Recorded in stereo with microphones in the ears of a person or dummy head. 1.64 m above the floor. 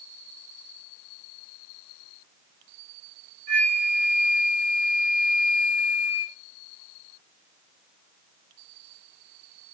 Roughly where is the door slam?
I don't hear a door slam.